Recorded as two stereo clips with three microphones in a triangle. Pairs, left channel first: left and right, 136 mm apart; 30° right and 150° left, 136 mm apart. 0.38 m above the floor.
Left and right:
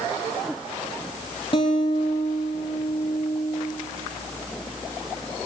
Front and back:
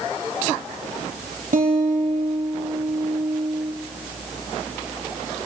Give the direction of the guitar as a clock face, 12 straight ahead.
7 o'clock.